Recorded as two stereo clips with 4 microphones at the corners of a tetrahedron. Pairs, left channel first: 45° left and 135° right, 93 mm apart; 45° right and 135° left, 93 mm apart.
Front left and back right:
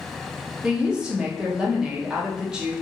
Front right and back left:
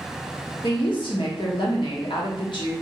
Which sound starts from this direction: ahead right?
A woman speaking, at 0.6 s.